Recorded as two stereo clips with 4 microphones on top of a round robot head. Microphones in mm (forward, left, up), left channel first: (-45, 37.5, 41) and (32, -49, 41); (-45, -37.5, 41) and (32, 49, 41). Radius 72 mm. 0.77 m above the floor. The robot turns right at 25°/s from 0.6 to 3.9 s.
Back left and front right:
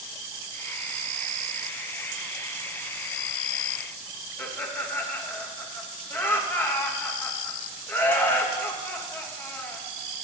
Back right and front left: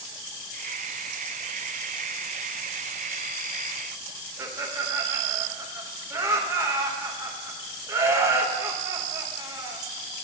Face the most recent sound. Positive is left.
turn(degrees=85)